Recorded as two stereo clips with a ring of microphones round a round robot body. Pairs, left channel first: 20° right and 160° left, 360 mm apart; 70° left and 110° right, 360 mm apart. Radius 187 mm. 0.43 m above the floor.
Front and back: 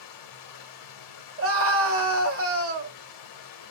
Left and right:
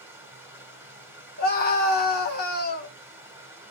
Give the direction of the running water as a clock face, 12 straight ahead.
1 o'clock.